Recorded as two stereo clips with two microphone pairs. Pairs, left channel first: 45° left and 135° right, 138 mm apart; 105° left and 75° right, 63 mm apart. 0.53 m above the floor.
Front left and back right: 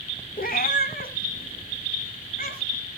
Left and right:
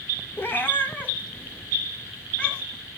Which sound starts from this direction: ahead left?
A cat meowing, at 0.4 s.